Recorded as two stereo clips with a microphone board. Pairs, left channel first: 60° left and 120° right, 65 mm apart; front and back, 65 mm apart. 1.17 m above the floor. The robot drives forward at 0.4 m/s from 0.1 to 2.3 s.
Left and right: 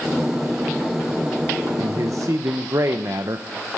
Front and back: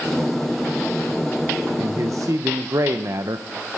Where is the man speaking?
145° right, 0.6 m; by 3.5 s 155° right, 0.8 m.